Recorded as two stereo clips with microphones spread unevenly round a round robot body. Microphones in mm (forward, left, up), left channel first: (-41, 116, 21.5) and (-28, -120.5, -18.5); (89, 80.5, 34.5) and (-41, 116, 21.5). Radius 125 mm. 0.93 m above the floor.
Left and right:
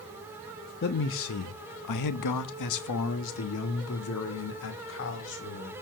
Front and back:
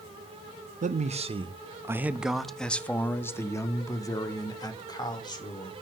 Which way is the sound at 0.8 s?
145° left.